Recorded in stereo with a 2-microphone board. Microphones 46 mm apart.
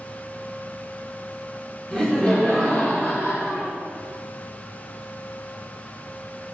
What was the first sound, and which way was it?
Laughter, 15° left (ahead or behind).